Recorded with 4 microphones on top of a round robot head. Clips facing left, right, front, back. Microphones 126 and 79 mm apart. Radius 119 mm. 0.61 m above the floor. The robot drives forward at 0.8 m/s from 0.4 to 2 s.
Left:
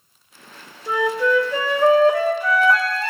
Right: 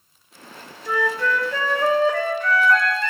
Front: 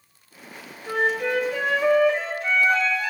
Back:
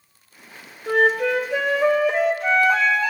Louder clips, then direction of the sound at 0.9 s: Left 3 dB, back 5 dB; 160° left.